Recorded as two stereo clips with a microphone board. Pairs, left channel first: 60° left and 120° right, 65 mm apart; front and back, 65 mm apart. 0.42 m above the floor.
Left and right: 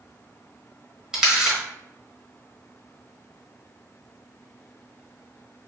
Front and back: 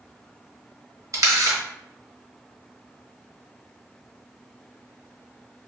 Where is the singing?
No singing in this recording.